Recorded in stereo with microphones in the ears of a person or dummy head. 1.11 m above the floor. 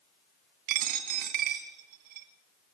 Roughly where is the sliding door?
No sliding door in this recording.